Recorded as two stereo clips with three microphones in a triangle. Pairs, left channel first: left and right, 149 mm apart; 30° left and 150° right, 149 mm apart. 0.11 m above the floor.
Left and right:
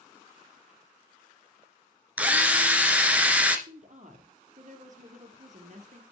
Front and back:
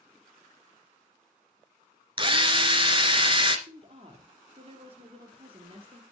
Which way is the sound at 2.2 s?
165° right.